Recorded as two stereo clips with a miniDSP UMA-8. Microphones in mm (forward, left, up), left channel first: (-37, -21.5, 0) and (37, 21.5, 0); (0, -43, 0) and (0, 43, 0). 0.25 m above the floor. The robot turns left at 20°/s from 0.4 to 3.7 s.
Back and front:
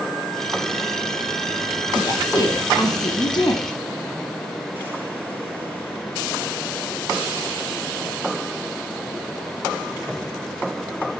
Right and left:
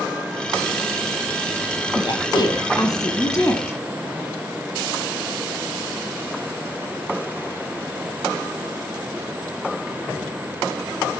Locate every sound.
1.9 s a woman speaking: 110° right, 1.8 m; by 3.8 s 145° right, 1.8 m